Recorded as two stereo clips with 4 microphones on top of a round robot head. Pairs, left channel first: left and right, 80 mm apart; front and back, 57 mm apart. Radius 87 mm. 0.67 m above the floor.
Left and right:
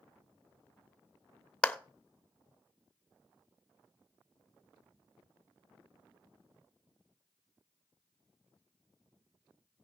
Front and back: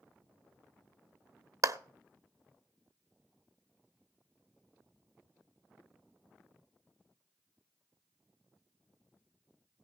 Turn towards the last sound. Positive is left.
turn(degrees=165)